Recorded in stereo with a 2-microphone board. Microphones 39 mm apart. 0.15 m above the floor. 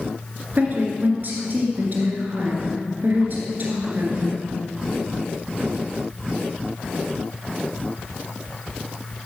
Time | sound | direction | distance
0.5 | a woman speaking | 50° right (ahead or behind) | 2 m